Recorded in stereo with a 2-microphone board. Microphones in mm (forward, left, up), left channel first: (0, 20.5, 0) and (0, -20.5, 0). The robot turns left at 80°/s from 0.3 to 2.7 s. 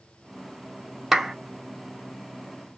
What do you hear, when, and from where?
1.1 s a clap: 5° right (ahead or behind), 0.6 m; by 1.4 s centre (ahead or behind), 0.6 m